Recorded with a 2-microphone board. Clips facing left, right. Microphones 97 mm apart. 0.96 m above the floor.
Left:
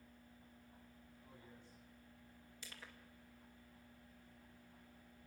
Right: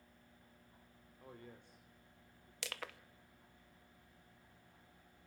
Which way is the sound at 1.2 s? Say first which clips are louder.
Right 7 dB; 60° right (ahead or behind).